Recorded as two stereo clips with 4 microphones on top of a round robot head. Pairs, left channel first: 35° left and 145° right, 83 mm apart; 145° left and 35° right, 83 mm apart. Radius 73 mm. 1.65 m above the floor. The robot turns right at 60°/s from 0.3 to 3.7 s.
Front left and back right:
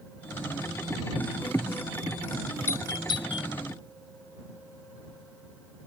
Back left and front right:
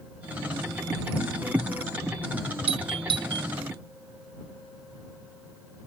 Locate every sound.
2.7 s a doorbell: 30° right; by 3.5 s 20° left